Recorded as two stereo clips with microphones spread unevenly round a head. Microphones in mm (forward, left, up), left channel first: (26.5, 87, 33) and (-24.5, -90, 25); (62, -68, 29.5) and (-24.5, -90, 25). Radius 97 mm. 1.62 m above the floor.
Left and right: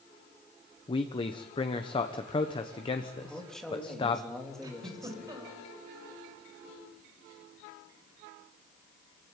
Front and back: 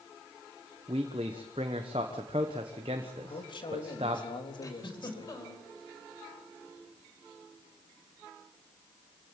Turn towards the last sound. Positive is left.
turn(degrees=-35)